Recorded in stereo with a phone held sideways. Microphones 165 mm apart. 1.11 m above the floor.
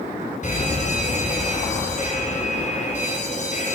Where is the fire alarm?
50° left (ahead or behind), 5.5 m.